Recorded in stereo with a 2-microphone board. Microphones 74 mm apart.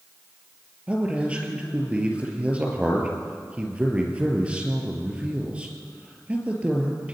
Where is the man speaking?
15° right (ahead or behind), 4 m.